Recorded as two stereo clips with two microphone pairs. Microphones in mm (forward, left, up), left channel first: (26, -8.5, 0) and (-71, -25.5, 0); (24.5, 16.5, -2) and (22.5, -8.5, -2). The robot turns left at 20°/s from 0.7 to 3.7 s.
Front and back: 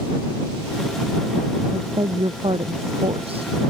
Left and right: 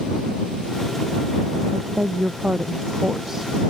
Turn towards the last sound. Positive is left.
turn(degrees=-175)